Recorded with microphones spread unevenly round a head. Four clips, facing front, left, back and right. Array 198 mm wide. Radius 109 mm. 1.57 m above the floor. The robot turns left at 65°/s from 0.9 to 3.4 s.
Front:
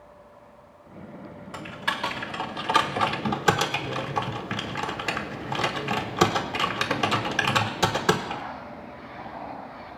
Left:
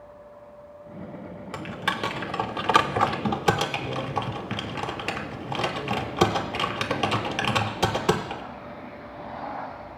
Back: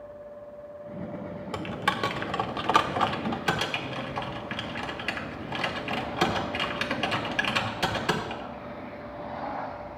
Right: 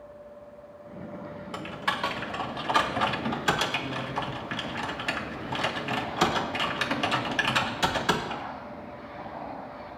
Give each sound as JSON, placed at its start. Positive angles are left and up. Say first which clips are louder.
{"t": 1.5, "sound": "typing on a keyboard", "louder": "left 2 dB, back 2 dB", "azimuth_deg": 170, "distance_m": 1.1}